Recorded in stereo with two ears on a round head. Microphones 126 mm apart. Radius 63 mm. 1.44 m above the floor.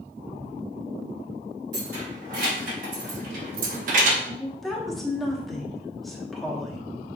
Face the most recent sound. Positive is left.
turn(degrees=0)  # may be behind; listen again after turning